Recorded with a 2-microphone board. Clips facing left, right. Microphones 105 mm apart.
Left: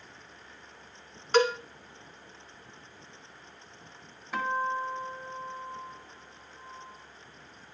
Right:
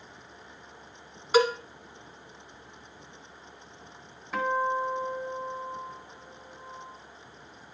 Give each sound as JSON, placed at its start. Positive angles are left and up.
{"t": 1.3, "sound": "a cowbell", "side_deg": -10, "distance_m": 0.8}
{"t": 4.3, "sound": "a guitar", "side_deg": 0, "distance_m": 1.1}